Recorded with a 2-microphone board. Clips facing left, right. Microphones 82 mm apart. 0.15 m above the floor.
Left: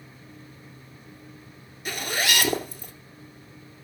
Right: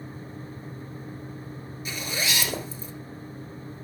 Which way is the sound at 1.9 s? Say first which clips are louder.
Left 4 dB; 60° left (ahead or behind).